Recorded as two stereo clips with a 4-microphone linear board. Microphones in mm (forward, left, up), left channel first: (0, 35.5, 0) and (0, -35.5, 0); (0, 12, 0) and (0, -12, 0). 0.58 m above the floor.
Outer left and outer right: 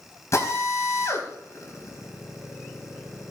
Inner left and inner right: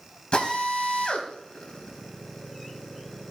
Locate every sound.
0.3 s a drill: 45° left (ahead or behind), 4.5 m